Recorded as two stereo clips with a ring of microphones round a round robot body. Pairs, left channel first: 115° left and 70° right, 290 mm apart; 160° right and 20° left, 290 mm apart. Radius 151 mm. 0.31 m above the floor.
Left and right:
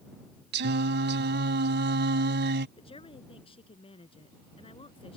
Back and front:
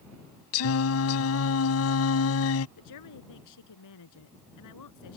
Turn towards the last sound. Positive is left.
turn(degrees=-175)